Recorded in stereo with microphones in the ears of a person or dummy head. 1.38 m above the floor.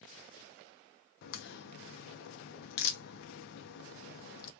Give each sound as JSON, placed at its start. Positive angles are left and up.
{"t": 1.2, "sound": "a crack", "side_deg": 60, "distance_m": 0.5}